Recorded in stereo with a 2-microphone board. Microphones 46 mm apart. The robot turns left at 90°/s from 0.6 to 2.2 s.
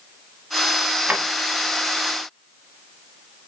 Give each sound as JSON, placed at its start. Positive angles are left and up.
{"t": 1.1, "sound": "a drawer", "side_deg": -30, "distance_m": 0.8}